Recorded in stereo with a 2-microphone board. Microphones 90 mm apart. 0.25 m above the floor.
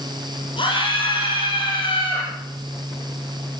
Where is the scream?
70° left (ahead or behind), 6.5 m.